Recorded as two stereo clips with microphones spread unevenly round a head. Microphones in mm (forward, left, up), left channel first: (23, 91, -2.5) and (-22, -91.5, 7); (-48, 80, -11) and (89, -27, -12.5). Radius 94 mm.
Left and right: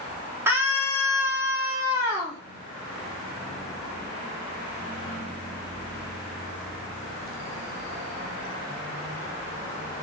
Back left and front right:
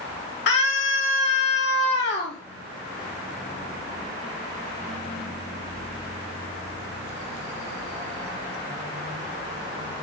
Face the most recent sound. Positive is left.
turn(degrees=180)